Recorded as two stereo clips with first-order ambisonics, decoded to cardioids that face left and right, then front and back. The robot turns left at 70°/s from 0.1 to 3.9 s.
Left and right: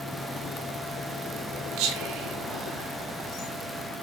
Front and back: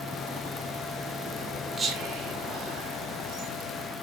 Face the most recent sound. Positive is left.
turn(degrees=100)